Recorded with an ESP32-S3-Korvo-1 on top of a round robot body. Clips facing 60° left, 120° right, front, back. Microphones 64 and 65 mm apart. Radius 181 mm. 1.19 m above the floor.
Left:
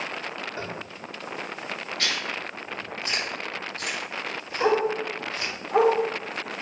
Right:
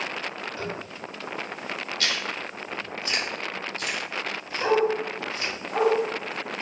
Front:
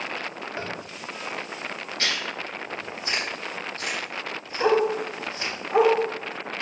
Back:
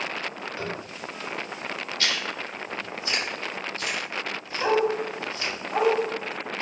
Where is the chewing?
35° left, 3 m.